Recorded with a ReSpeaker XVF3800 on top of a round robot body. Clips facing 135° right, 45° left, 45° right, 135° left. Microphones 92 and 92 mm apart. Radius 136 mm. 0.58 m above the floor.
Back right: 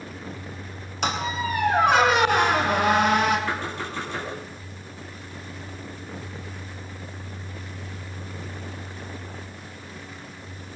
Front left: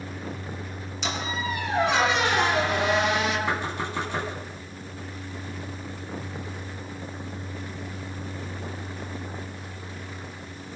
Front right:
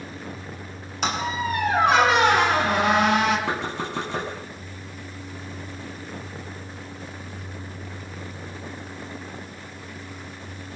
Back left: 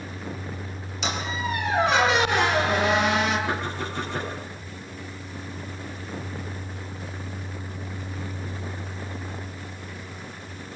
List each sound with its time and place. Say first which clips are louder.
1.0 s a squeak: back right 4 dB, front right 4 dB; 95° right, 3.5 m
3.5 s knocking: front left 1 dB, front right 1 dB; 30° right, 5.5 m